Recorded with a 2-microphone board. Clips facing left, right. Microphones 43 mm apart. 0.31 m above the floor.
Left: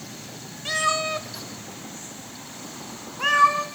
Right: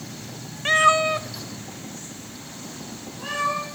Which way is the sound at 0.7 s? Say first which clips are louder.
Right 7 dB; 45° right (ahead or behind).